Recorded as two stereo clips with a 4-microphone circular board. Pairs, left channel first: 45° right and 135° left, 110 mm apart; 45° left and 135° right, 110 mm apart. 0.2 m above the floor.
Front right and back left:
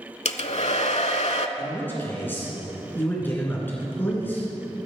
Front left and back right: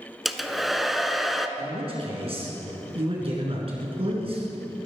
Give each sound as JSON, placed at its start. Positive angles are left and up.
{"t": 0.2, "sound": "a hair dryer", "azimuth_deg": -45, "distance_m": 0.5}
{"t": 1.6, "sound": "a man speaking", "azimuth_deg": -115, "distance_m": 3.0}